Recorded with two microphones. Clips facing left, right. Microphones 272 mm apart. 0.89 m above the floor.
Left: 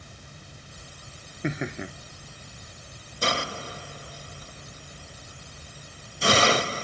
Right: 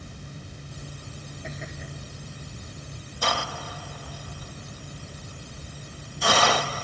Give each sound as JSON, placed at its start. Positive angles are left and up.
{"t": 1.4, "sound": "laughter", "side_deg": 90}
{"t": 3.2, "sound": "a hiss", "side_deg": 25}